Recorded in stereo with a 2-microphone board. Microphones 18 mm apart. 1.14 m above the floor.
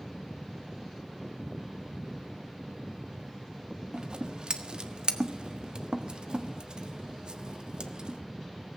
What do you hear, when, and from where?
3.9 s scissors: 50° right (ahead or behind), 1.4 m